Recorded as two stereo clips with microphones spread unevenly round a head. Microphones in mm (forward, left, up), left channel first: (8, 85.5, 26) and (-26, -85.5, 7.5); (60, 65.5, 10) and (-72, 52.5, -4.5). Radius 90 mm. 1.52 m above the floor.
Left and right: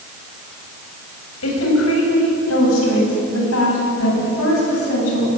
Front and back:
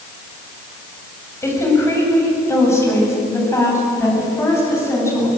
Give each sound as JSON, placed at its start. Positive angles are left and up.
{"t": 1.4, "sound": "a woman speaking", "azimuth_deg": 75, "distance_m": 8.0}